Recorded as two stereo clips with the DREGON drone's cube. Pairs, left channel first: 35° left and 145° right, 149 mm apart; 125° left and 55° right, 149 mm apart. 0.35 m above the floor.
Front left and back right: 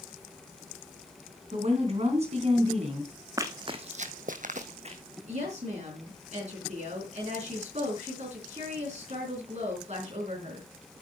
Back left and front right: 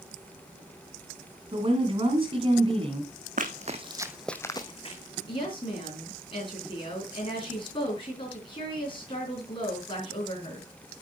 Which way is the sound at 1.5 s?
105° right.